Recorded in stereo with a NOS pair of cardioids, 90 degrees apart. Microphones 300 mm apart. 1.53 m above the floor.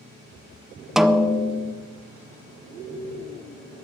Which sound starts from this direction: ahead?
A snare drum, at 1.0 s.